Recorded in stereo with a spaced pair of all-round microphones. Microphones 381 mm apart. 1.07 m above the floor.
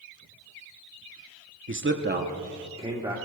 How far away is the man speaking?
About 0.8 m.